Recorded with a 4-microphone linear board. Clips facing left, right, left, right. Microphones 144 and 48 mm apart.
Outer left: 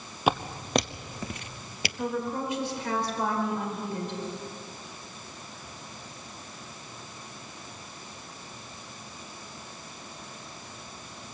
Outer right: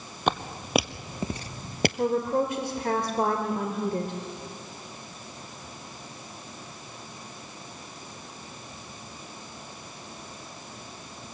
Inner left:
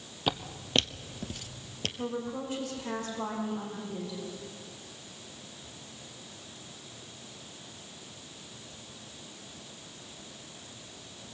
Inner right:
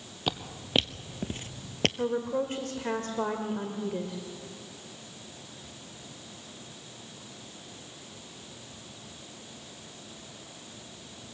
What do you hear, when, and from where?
0.3 s footsteps: 5° left (ahead or behind), 1.0 m; by 1.9 s 55° right (ahead or behind), 0.6 m
2.0 s a woman speaking: 50° right (ahead or behind), 2 m